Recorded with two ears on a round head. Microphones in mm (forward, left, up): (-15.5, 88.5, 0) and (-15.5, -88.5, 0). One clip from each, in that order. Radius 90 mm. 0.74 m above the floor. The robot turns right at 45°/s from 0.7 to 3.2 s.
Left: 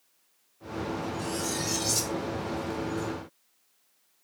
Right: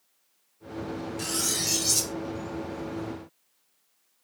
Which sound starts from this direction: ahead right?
Cutlery clinking, at 1.2 s.